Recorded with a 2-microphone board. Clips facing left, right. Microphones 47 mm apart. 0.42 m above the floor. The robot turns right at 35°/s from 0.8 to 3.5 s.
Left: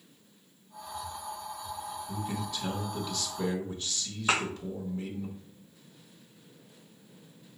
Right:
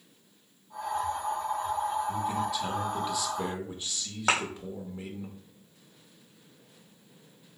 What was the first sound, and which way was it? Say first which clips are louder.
A man speaking: right 6 dB; centre (ahead or behind).